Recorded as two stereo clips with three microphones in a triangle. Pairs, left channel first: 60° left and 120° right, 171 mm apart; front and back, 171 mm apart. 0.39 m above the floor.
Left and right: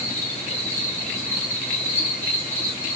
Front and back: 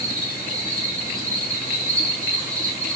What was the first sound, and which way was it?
An insect, 140° left.